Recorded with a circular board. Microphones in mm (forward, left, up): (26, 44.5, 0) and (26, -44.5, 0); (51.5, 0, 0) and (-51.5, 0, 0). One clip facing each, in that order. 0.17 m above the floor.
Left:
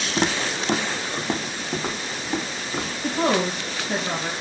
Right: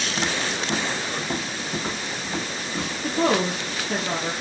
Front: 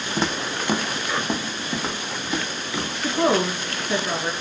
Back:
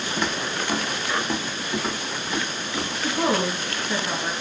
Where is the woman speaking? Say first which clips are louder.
Even, front 3 dB; 80° left, 1.9 m.